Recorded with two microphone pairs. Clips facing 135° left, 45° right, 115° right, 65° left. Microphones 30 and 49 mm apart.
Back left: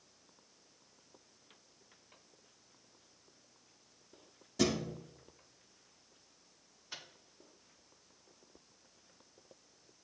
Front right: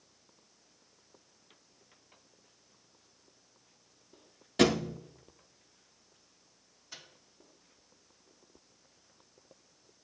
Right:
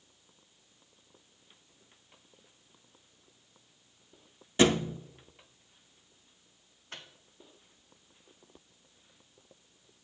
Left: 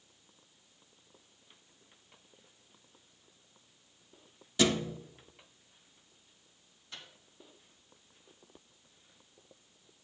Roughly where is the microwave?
Behind right.